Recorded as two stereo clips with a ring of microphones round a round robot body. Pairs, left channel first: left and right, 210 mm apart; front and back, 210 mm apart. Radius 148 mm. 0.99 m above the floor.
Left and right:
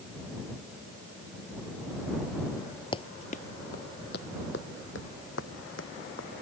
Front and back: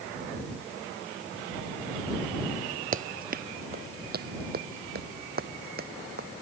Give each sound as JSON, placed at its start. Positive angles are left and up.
{"t": 2.9, "sound": "running footsteps", "azimuth_deg": 150}